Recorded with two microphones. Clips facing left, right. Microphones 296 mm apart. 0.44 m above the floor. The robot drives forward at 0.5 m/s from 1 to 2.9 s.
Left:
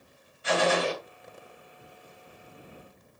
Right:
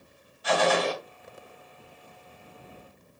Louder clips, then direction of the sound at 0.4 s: Right 1 dB; 30° left (ahead or behind).